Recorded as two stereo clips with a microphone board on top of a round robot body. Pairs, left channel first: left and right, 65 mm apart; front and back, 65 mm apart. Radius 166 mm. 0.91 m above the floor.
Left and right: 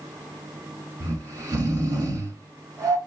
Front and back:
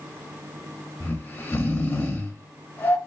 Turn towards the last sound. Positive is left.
turn(degrees=-60)